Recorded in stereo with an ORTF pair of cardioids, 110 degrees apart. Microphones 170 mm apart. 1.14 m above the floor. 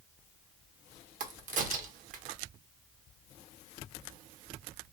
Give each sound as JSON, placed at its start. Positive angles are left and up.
{"t": 1.2, "sound": "a crack", "azimuth_deg": -50, "distance_m": 0.8}